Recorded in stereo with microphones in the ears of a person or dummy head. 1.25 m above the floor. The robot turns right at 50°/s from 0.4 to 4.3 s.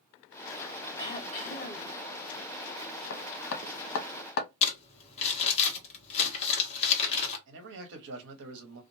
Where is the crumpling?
35° left (ahead or behind), 1.1 m.